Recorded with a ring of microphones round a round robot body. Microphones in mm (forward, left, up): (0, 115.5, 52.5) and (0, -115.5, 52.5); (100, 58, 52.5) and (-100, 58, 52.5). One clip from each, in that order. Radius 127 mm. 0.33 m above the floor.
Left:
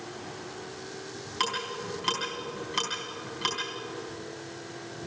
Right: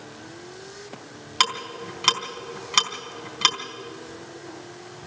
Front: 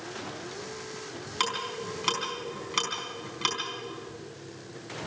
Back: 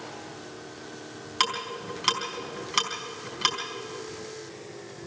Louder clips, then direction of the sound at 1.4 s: Right 7 dB, back 3 dB; 105° right.